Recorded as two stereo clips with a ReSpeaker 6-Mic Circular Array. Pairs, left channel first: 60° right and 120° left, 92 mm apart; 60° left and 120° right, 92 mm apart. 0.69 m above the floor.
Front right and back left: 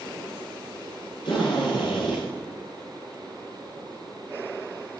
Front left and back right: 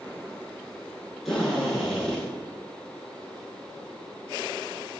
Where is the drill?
25° right, 8.5 m.